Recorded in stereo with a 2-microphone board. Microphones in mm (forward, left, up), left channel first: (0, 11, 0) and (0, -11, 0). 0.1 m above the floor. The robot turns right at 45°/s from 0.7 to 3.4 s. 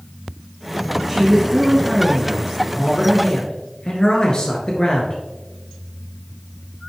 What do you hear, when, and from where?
1.1 s a man speaking: 5° right, 1.5 m; by 5.2 s 100° left, 1.5 m